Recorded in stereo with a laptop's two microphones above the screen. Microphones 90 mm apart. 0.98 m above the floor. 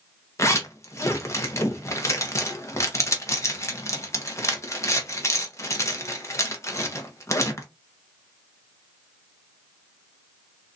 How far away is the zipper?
About 1.0 m.